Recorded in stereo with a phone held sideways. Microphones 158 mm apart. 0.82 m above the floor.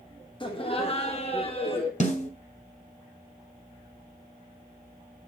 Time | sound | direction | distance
0.4 | laughter | 30° left (ahead or behind) | 1.2 m
2.0 | a snare drum | 45° left (ahead or behind) | 1.9 m